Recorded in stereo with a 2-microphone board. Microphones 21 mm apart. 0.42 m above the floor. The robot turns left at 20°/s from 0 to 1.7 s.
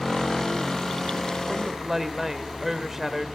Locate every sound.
1.5 s a woman speaking: 20° right (ahead or behind), 1.5 m